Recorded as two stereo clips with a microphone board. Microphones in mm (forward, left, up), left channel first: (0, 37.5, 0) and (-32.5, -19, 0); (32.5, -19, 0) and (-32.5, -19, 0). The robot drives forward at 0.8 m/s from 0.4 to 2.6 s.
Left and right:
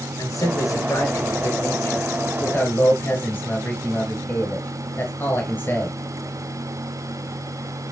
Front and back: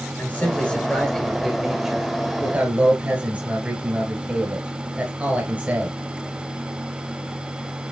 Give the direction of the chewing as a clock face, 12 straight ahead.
No chewing in this recording.